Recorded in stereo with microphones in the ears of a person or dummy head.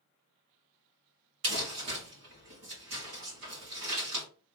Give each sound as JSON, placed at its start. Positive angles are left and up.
{"t": 1.4, "sound": "crumpling", "side_deg": -80, "distance_m": 2.0}